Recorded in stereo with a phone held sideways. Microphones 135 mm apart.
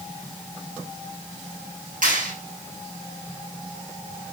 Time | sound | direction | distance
2.0 | a clap | 80° right | 8 m